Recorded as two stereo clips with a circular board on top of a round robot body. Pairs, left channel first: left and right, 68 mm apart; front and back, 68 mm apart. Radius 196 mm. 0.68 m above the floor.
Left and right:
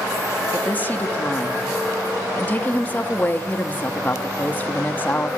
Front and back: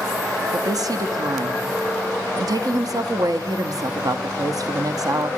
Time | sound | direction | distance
0.5 | a woman speaking | 155° left | 1.3 m